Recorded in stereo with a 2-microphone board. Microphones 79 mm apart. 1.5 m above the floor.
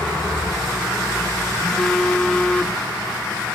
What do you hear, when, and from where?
1.6 s a phone buzzing: 10° left (ahead or behind), 0.9 m